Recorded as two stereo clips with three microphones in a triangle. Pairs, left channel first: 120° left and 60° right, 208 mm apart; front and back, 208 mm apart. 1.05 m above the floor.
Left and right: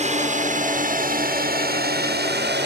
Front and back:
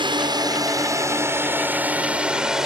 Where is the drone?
115° right; by 2.7 s 90° right.